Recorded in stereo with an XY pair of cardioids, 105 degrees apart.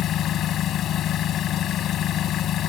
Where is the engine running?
70° left.